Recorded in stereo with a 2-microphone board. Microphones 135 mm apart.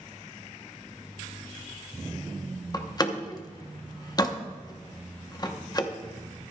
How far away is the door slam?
About 0.9 m.